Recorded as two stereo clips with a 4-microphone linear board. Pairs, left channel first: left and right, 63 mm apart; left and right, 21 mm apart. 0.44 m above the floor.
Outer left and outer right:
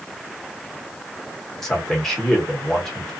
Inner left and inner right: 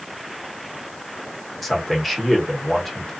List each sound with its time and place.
1.6 s a man speaking: 5° left (ahead or behind), 1.3 m